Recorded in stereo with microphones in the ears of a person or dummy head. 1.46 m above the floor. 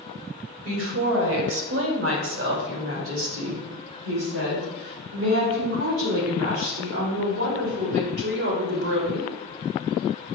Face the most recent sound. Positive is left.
turn(degrees=-80)